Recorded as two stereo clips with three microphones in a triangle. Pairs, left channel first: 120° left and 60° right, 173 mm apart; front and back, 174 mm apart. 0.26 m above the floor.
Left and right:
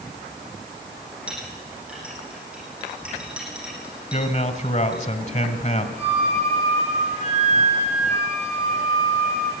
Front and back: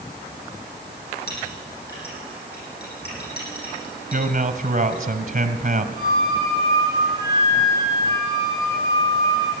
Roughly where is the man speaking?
Behind left.